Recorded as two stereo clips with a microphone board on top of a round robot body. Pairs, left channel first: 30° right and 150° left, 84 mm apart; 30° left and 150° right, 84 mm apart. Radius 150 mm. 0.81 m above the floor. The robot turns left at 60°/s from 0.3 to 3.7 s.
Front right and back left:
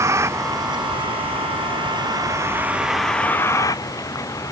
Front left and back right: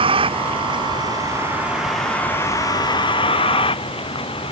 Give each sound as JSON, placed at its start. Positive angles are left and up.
{"t": 0.0, "sound": "a vehicle", "azimuth_deg": -150}